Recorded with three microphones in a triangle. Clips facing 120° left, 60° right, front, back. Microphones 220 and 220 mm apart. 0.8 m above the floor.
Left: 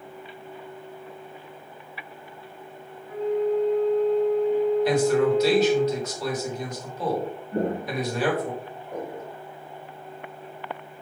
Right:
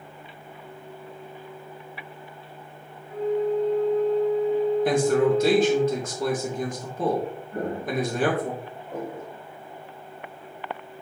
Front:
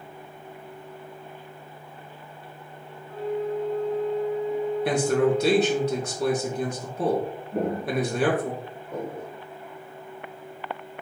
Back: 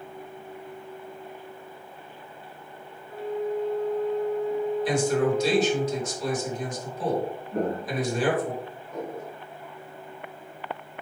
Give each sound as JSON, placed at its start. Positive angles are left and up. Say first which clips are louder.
{"t": 3.1, "sound": "a flute", "louder": "even, front 1 dB", "azimuth_deg": -15, "distance_m": 3.0}
{"t": 4.8, "sound": "a man speaking", "louder": "right 2 dB, front 3 dB", "azimuth_deg": -20, "distance_m": 2.5}
{"t": 7.5, "sound": "footsteps", "louder": "left 2 dB, front 2 dB", "azimuth_deg": 90, "distance_m": 0.8}